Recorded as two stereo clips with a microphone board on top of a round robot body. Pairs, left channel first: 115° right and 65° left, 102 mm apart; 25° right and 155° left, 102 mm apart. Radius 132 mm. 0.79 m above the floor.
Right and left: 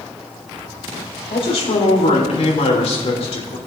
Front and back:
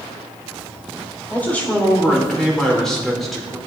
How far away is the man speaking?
About 4 m.